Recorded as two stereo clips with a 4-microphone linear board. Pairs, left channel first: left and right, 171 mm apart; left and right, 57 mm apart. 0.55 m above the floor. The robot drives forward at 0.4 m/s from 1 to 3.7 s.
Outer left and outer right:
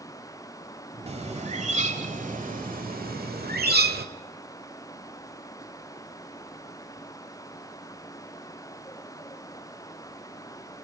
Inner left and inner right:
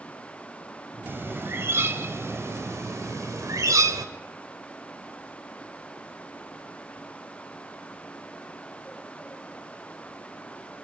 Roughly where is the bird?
Right.